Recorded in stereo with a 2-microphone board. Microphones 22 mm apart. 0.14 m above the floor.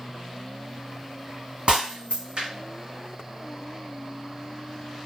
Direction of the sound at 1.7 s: 65° right (ahead or behind).